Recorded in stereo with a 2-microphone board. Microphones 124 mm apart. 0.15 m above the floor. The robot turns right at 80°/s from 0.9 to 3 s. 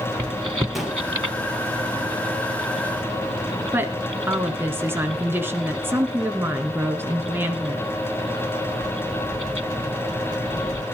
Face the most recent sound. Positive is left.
turn(degrees=-20)  # may be behind; listen again after turning